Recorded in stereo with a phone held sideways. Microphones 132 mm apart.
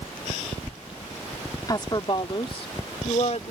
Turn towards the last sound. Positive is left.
turn(degrees=55)  # may be behind; listen again after turning